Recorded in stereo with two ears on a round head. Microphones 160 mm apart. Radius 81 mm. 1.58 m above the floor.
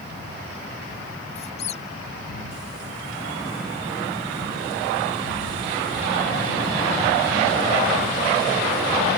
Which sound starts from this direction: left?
A squeak, at 1.4 s.